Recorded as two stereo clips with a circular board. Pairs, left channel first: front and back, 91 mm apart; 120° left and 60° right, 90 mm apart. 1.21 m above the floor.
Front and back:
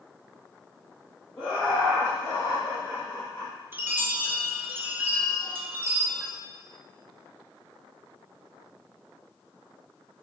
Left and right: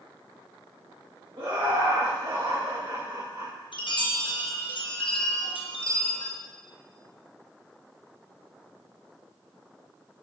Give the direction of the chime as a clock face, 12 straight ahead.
8 o'clock.